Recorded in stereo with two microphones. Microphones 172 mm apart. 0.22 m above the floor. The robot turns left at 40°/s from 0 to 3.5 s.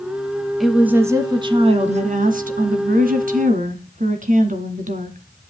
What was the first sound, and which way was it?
A woman speaking, straight ahead.